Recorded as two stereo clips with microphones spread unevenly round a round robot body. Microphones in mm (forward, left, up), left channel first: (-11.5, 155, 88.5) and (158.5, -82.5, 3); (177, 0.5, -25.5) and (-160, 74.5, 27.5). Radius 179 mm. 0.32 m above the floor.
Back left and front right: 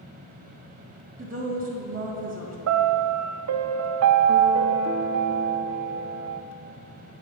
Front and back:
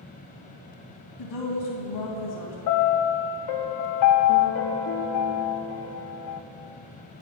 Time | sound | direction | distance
1.2 | a woman speaking | 5° right | 2 m
2.7 | a piano | 35° right | 0.6 m